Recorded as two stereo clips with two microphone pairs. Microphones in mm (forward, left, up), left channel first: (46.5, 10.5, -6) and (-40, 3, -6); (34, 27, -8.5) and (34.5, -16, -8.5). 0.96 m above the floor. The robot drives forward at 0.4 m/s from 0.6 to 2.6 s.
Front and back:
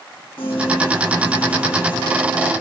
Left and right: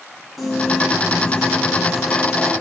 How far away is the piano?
About 1.8 m.